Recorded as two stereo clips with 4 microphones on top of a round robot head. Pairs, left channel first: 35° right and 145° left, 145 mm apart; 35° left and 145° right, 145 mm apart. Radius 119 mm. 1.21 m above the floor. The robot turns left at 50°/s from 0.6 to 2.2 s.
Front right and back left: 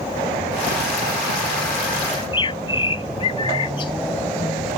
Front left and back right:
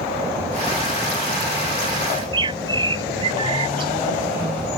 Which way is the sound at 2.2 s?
85° right.